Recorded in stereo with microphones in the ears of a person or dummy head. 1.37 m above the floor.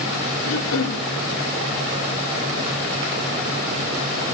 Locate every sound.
0.4 s throat clearing: 75° left (ahead or behind), 1.9 m